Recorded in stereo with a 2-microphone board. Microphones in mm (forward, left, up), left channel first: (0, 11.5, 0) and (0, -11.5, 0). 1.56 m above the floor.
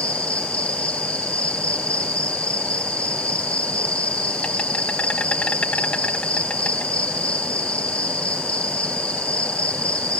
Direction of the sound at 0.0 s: 80° left.